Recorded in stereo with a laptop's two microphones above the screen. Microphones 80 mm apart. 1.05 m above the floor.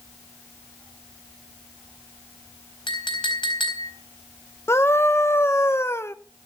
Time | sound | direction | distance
2.9 | a clink | 80° left | 4 m
4.7 | a scream | 35° left (ahead or behind) | 1.0 m